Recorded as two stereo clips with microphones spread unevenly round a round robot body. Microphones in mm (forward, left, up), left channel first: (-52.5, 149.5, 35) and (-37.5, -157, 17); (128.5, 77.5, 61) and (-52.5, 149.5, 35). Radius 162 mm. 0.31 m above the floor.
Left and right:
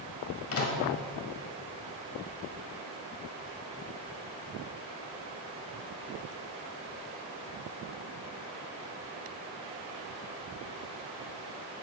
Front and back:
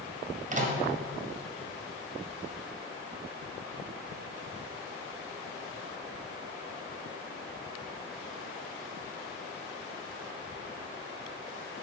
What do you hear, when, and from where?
0.5 s a microwave: 125° left, 1.6 m